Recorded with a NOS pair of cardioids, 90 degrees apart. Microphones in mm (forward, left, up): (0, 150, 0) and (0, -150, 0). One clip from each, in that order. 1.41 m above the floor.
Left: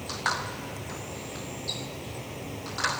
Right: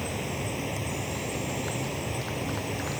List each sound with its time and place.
0.0 s an insect: 50° right